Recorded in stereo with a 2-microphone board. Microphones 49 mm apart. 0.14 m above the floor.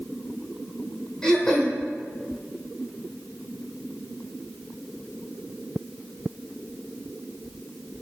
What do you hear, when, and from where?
1.2 s throat clearing: 10° left (ahead or behind), 0.9 m